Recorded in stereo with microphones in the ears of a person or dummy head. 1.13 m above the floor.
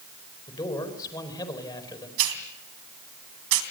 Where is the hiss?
70° right (ahead or behind), 3 m.